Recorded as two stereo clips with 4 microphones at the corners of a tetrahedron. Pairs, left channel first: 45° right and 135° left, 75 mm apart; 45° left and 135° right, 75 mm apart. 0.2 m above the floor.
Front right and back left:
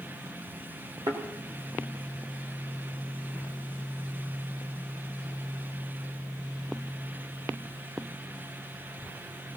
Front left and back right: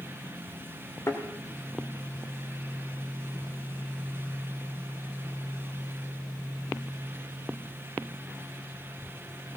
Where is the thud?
100° left, 3.5 m.